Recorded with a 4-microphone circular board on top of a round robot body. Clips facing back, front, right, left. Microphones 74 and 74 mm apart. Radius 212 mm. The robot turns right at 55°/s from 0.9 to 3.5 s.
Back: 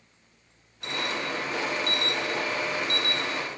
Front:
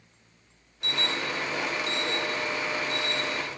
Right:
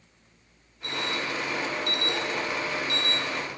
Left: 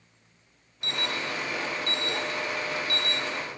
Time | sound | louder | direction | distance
0.8 | an alarm | even, right 1 dB | 90° left | 5 m